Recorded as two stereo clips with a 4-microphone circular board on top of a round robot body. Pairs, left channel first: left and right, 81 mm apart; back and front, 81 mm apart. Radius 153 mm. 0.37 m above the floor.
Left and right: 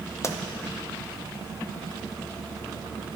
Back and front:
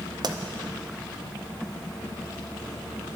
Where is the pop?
35° left, 0.8 m.